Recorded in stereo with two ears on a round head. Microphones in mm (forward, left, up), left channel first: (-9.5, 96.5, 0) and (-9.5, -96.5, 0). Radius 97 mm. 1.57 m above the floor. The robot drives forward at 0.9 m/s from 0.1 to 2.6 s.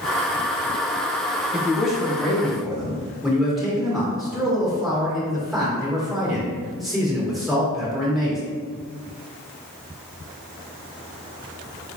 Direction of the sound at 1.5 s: Centre (ahead or behind).